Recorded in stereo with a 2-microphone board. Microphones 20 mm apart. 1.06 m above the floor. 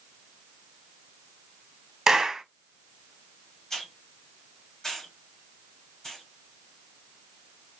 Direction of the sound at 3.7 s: 25° left (ahead or behind).